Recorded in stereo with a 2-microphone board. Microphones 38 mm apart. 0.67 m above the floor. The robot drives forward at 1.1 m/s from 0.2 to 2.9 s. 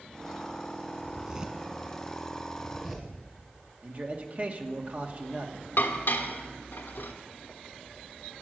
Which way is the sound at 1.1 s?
30° right (ahead or behind).